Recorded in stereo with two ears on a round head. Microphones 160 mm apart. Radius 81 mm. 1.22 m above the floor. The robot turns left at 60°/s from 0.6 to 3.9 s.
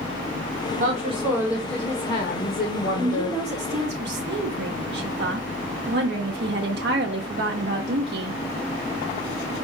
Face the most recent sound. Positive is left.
turn(degrees=-60)